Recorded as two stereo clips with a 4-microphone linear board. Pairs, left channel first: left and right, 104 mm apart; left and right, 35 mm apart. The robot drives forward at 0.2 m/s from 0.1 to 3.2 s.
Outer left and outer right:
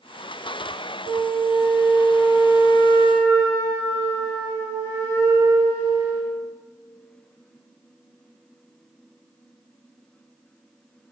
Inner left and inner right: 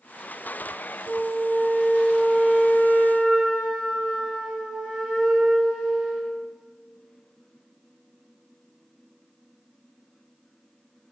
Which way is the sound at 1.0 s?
25° right (ahead or behind).